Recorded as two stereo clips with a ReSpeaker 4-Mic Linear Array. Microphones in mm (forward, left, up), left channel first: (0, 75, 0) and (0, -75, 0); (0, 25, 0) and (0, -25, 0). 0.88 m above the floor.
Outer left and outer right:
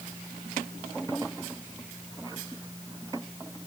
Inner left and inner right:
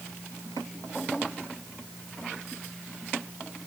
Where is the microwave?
I don't hear a microwave.